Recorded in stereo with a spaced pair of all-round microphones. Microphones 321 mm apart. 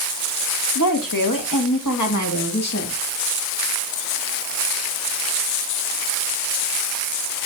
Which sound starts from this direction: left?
A woman speaking, at 0.8 s.